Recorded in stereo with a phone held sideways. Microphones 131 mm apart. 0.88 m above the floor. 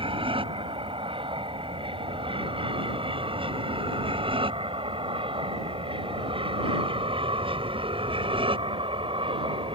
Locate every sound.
0.0 s an aircraft: 40° right (ahead or behind)